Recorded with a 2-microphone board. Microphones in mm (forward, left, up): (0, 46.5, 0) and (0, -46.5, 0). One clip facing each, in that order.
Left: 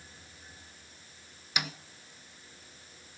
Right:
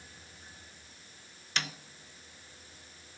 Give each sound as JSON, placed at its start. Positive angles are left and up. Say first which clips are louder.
{"t": 1.6, "sound": "a snare drum", "louder": "left 1 dB", "side_deg": 10, "distance_m": 0.6}